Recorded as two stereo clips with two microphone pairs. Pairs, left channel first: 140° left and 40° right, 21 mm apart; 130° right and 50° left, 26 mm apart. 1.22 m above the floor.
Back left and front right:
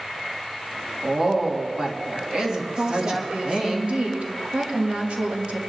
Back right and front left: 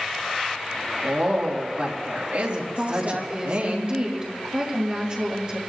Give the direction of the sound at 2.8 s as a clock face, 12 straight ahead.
12 o'clock.